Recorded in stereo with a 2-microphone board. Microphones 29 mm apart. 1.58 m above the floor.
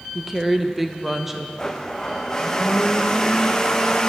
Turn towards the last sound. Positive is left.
turn(degrees=20)  # may be behind; listen again after turning